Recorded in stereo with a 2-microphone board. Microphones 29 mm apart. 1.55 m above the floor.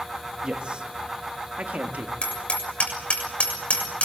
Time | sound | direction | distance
0.4 | a man speaking | 30° right (ahead or behind) | 2.5 m
2.2 | hammering | 40° left (ahead or behind) | 6.5 m